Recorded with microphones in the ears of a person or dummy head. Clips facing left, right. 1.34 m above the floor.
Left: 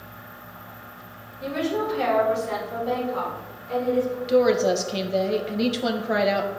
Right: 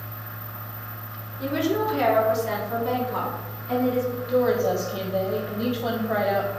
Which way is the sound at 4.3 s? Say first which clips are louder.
Left 2 dB; 30° left (ahead or behind).